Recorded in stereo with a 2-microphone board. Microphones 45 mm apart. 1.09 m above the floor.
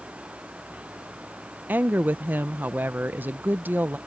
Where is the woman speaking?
40° right (ahead or behind).